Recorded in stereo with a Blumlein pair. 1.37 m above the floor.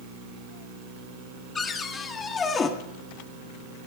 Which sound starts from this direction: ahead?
A cupboard door, at 1.6 s.